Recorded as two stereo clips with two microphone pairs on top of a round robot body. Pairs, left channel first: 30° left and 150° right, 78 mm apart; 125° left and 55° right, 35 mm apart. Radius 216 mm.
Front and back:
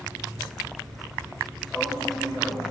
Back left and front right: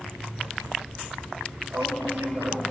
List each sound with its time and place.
1.7 s a man speaking: 55° right, 5 m